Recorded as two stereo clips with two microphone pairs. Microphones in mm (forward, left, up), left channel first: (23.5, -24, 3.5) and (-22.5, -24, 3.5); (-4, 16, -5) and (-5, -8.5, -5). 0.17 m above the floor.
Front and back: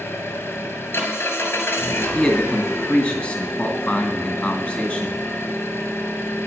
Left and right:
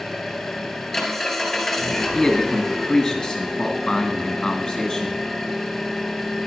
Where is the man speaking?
20° left, 1.7 m.